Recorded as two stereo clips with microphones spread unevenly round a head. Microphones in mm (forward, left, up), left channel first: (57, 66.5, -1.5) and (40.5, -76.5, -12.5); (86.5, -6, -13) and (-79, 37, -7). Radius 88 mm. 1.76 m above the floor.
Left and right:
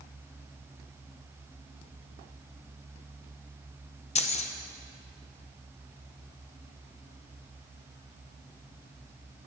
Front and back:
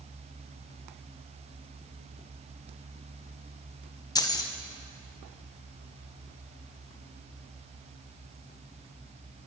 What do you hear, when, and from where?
4.2 s keys jangling: 55° left, 1.1 m